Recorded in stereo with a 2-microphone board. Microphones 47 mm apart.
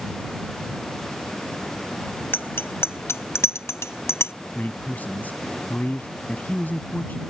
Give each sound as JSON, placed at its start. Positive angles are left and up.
{"t": 2.3, "sound": "a bicycle bell", "side_deg": 50}
{"t": 4.5, "sound": "a man speaking", "side_deg": 40}